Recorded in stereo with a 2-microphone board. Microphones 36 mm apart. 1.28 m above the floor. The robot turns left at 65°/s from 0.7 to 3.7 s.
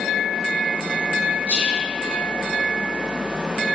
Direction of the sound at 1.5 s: 35° right (ahead or behind).